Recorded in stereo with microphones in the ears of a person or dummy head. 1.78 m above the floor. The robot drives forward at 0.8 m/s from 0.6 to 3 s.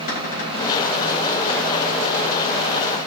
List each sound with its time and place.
0.1 s a cupboard door: 50° left (ahead or behind), 4 m